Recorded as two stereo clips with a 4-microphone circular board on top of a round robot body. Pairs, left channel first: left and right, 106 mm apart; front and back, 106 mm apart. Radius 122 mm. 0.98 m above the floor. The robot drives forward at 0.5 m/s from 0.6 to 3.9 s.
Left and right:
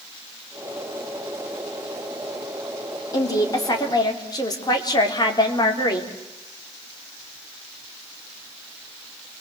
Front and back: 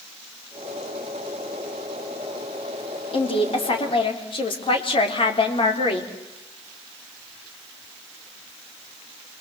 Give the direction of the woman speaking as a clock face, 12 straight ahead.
11 o'clock.